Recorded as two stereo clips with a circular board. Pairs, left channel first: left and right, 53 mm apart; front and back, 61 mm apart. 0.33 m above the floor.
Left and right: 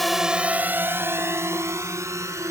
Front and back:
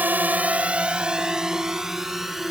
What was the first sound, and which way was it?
A drone, 175° left.